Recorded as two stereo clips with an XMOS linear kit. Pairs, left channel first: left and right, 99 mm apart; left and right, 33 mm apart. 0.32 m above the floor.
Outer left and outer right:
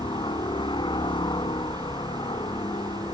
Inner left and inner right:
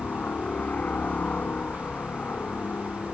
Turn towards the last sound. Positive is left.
turn(degrees=55)  # may be behind; listen again after turning